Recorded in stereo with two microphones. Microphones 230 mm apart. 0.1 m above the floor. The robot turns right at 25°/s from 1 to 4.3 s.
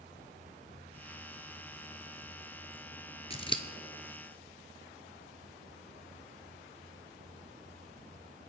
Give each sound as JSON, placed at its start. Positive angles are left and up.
{"t": 3.3, "sound": "scissors", "side_deg": 30, "distance_m": 0.8}